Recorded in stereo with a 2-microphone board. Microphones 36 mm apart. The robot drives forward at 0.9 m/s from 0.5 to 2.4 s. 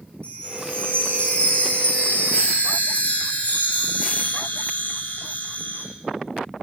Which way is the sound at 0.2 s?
35° left (ahead or behind).